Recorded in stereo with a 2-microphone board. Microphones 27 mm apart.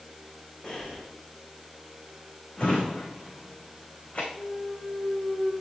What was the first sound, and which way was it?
Breathing, 25° left (ahead or behind).